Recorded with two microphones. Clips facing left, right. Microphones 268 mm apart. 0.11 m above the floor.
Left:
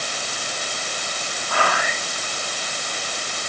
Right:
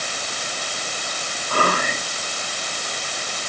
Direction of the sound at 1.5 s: 45° right (ahead or behind).